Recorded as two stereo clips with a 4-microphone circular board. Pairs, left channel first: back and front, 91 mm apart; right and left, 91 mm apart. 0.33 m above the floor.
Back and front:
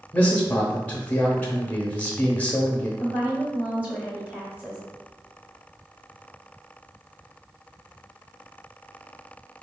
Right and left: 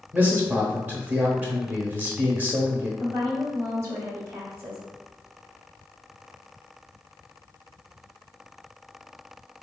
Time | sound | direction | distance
0.1 | a man speaking | 135° left | 0.9 m
3.0 | a woman speaking | 60° left | 1.3 m